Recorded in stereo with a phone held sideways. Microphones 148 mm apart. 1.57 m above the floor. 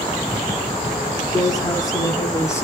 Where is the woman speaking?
25° left (ahead or behind), 5 m; by 2.6 s 20° left (ahead or behind), 3 m.